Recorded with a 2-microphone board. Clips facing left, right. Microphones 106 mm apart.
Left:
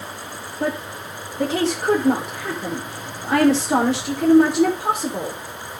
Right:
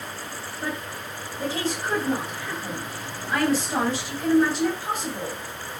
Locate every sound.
0.6 s a woman speaking: 85° left, 4.5 m